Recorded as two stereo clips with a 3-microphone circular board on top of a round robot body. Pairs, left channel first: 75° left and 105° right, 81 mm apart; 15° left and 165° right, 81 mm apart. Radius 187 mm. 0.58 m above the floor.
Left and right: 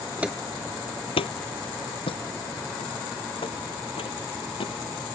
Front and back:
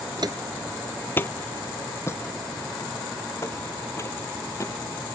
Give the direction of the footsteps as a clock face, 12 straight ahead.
6 o'clock.